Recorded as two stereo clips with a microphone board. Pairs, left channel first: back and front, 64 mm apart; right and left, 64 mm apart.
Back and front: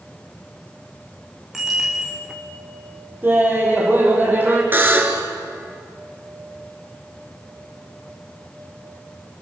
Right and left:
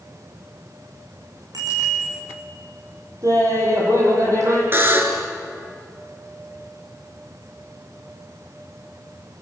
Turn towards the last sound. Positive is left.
turn(degrees=50)